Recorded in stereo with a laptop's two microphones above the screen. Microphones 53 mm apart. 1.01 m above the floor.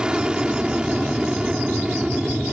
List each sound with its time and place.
0.0 s an aircraft: 15° right (ahead or behind)